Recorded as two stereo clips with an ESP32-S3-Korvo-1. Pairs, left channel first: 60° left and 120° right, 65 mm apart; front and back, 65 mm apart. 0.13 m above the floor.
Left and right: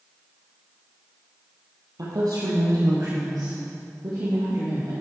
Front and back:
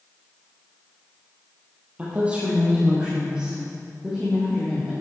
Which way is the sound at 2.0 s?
115° right.